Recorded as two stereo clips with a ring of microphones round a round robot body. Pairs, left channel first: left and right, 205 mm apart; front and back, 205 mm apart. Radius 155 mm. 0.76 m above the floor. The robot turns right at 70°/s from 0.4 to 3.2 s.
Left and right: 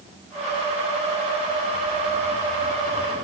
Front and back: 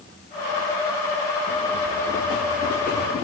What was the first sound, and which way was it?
Only background noise.